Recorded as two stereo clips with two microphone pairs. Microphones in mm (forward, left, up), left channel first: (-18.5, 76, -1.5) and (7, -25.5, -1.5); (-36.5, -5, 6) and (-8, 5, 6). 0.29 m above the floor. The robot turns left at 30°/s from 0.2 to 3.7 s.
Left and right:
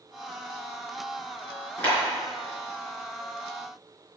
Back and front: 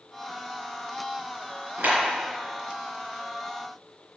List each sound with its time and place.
1.8 s a clap: 30° left, 4 m; by 2.0 s 25° left, 4 m